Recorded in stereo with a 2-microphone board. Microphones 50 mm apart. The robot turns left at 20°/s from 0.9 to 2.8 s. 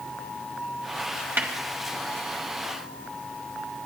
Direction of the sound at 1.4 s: 40° right (ahead or behind).